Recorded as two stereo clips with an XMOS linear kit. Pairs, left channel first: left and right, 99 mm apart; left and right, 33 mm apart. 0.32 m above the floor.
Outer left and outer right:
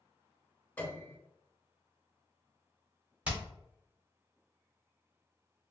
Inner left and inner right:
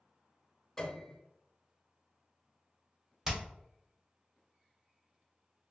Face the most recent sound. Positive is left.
turn(degrees=-10)  # may be behind; listen again after turning